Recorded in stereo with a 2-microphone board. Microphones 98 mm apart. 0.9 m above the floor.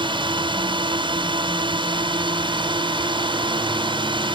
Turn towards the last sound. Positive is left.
turn(degrees=-55)  # may be behind; listen again after turning